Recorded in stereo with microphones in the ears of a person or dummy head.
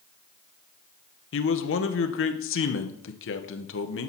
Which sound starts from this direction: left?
A man speaking, at 1.3 s.